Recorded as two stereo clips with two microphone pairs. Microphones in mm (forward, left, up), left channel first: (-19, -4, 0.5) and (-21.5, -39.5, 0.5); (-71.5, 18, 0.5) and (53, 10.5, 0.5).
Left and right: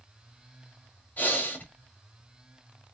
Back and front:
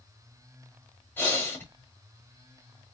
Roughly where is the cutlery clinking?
No cutlery clinking in this recording.